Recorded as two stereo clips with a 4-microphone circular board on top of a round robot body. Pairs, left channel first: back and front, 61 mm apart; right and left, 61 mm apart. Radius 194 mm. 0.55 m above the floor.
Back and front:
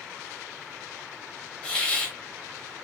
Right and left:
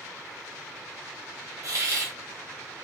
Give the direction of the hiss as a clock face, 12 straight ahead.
8 o'clock.